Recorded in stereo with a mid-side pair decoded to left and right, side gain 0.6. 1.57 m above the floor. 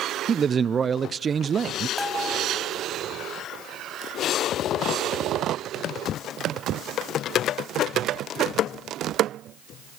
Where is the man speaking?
35° right, 0.5 m.